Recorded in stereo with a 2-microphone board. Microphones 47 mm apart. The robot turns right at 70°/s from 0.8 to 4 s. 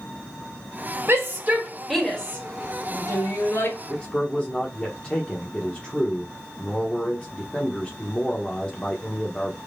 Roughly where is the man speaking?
Left.